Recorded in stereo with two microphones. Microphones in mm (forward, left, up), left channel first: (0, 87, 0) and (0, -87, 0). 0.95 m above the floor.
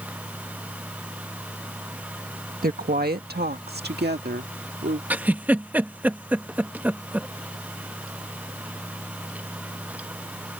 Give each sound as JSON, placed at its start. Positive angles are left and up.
{"t": 2.6, "sound": "a woman speaking", "side_deg": -60}
{"t": 5.1, "sound": "a giggle", "side_deg": -10}